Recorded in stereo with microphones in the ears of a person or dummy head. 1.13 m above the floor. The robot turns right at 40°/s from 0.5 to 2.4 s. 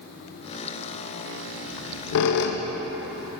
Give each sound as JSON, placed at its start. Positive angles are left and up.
{"t": 1.7, "sound": "a squeak", "side_deg": 70, "distance_m": 0.5}